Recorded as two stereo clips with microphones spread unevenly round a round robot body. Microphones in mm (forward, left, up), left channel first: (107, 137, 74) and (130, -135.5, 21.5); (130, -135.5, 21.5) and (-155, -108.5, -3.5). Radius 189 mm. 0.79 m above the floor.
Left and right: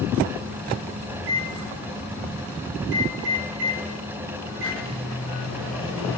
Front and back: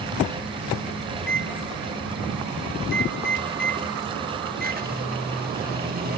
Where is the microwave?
130° right, 2 m.